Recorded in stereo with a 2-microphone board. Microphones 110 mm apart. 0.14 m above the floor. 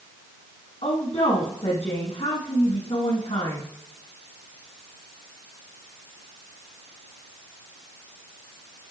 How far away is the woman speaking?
About 5.5 m.